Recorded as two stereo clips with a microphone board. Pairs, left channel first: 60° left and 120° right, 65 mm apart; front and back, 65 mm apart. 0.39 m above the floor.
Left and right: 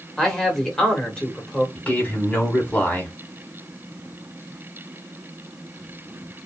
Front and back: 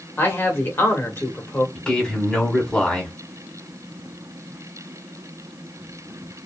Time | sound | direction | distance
0.2 | a man speaking | 10° right | 1.3 m
1.8 | a man speaking | 45° left | 1.4 m